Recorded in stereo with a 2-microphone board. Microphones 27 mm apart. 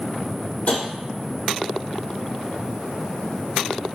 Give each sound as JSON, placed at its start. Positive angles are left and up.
{"t": 0.7, "sound": "tapping", "side_deg": 70, "distance_m": 2.5}